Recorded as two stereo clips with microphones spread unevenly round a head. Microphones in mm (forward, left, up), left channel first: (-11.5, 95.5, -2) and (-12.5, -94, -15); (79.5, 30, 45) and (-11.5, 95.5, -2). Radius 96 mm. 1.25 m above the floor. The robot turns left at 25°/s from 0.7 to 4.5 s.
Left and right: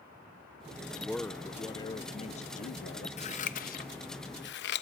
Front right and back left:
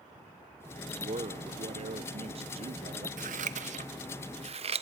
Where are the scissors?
140° left, 0.8 m; by 4.8 s 110° left, 0.8 m.